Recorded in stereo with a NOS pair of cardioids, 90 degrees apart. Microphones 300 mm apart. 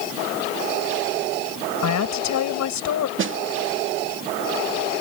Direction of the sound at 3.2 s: 40° right.